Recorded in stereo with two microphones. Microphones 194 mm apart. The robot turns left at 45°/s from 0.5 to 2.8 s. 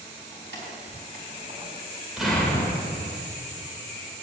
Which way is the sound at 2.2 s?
5° right (ahead or behind).